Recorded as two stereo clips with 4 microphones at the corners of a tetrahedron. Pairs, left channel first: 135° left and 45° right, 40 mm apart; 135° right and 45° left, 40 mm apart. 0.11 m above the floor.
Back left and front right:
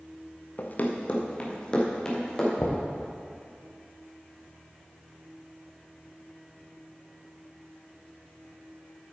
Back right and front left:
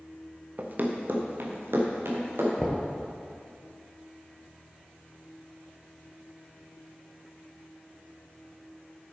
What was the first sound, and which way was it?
Running footsteps, 95° left.